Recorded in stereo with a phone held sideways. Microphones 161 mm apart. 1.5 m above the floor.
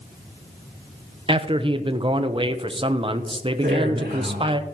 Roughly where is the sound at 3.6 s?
Right.